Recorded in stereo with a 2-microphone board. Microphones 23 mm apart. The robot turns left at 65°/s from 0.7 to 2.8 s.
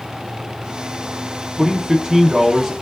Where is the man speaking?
25° right (ahead or behind), 0.6 m; by 2.7 s 20° right (ahead or behind), 0.6 m.